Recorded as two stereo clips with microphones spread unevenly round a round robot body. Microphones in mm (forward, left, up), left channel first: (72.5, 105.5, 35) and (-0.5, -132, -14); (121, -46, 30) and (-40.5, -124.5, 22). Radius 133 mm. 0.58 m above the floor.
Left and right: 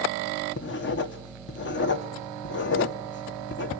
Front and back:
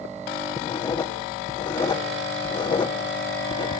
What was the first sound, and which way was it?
Writing, 70° left.